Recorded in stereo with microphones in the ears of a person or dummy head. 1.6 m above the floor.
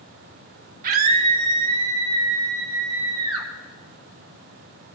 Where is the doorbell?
I don't hear a doorbell.